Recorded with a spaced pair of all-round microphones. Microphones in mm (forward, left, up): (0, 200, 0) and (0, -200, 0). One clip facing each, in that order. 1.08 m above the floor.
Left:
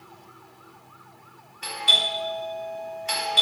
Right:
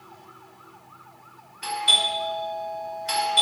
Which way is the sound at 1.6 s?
35° right (ahead or behind).